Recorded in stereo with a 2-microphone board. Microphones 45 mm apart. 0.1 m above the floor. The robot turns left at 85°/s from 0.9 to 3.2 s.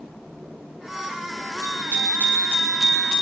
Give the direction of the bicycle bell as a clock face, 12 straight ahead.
2 o'clock.